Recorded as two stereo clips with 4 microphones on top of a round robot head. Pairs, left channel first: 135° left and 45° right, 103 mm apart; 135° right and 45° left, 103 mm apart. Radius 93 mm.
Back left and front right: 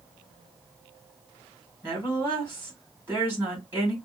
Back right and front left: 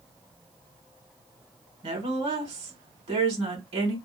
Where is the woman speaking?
20° left, 3 m.